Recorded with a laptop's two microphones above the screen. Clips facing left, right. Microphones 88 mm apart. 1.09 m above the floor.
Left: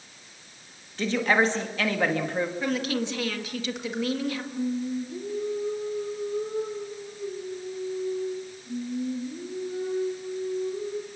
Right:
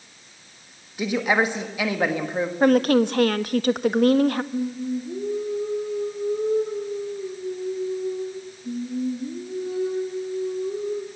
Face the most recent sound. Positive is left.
turn(degrees=-75)  # may be behind; listen again after turning